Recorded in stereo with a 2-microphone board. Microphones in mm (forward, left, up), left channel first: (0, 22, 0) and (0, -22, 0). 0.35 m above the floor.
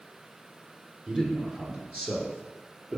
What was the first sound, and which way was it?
A man speaking, 25° right (ahead or behind).